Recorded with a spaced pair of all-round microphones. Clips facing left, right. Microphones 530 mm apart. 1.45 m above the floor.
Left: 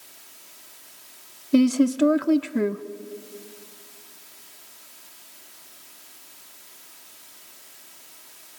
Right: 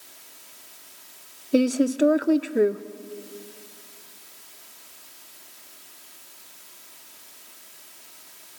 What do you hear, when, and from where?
1.5 s a woman speaking: 25° left (ahead or behind), 0.5 m